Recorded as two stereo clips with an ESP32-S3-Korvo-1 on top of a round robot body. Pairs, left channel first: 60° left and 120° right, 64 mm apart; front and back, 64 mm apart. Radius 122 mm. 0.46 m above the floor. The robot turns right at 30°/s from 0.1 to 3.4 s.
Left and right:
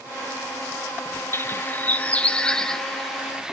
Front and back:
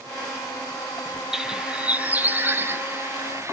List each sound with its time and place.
1.3 s a bird: 100° left, 1.7 m; by 3.5 s 160° left, 1.7 m